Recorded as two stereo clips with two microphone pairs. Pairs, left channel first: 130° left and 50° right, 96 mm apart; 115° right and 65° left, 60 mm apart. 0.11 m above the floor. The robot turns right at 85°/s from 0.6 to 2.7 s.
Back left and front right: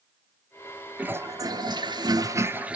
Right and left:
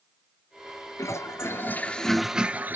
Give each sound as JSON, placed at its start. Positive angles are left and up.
{"t": 1.0, "sound": "a toilet flushing", "azimuth_deg": -120, "distance_m": 0.6}